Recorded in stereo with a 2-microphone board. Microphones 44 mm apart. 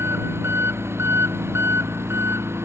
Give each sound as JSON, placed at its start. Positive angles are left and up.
{"t": 0.0, "sound": "an engine running", "side_deg": -75}